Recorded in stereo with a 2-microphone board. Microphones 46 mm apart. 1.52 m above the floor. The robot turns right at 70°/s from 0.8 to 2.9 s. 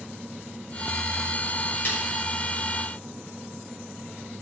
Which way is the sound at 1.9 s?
45° left (ahead or behind).